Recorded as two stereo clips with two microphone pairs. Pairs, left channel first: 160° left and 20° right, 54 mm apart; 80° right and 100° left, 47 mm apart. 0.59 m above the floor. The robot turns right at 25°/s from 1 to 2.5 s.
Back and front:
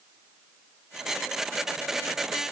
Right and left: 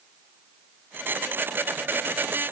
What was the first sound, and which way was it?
Only background noise.